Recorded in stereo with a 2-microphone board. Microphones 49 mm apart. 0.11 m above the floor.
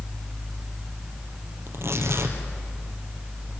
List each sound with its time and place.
1.7 s tearing paper: 55° right (ahead or behind), 3 m